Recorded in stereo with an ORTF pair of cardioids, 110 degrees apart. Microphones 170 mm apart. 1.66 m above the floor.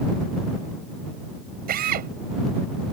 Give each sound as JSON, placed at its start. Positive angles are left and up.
{"t": 1.7, "sound": "a drill", "azimuth_deg": -65}